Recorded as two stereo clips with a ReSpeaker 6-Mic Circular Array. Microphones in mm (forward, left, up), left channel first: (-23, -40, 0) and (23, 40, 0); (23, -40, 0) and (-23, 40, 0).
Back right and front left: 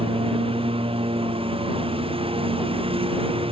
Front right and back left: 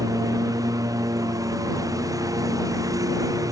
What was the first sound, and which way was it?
A lawn mower, 70° left.